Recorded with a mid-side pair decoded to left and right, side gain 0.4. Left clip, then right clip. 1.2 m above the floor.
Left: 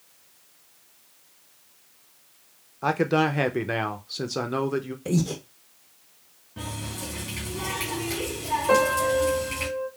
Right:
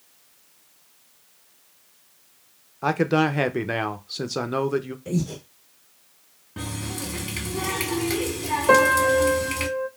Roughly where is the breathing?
Ahead left.